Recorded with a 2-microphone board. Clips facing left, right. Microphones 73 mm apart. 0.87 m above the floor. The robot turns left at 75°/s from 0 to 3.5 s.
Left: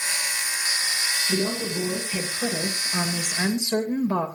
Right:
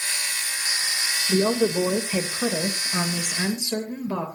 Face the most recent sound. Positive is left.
turn(degrees=155)